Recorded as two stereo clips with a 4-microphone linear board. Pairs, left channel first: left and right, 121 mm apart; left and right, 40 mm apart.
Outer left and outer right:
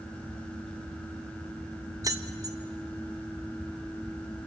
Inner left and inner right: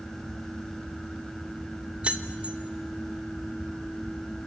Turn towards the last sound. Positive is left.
turn(degrees=-30)  # may be behind; listen again after turning